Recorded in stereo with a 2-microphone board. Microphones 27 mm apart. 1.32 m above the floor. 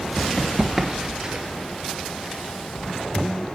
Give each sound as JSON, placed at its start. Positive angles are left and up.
{"t": 0.2, "sound": "running footsteps", "side_deg": 15, "distance_m": 1.5}